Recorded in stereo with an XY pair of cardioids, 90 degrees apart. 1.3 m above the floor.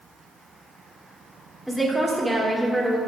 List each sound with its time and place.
1.7 s a woman speaking: straight ahead, 2.5 m